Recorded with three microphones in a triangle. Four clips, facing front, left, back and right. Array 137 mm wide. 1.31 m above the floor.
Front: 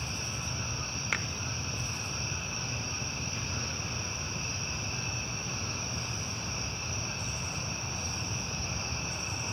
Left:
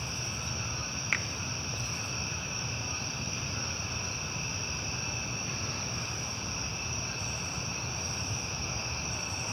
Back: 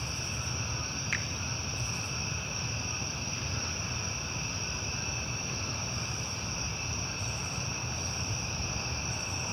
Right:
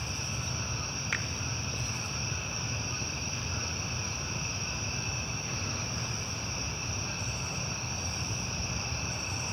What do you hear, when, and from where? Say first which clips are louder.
1.1 s a finger snap: left 1 dB, front 3 dB; 10° left, 0.9 m